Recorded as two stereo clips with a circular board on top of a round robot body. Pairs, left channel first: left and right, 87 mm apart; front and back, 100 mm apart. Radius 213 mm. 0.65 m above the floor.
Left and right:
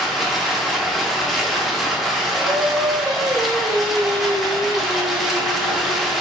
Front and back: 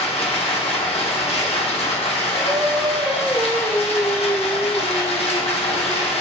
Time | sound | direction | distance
0.0 | running water | straight ahead | 0.8 m
2.4 | singing | 125° right | 1.5 m